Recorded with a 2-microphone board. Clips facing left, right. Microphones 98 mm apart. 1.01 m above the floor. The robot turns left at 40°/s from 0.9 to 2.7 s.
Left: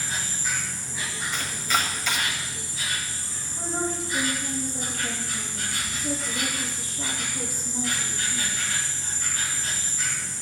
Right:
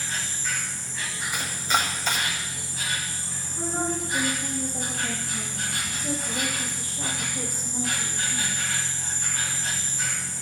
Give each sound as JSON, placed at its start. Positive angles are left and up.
{"t": 0.0, "sound": "an insect", "azimuth_deg": 10, "distance_m": 1.8}
{"t": 1.3, "sound": "chopping", "side_deg": -15, "distance_m": 1.4}
{"t": 3.5, "sound": "a woman speaking", "side_deg": -55, "distance_m": 6.5}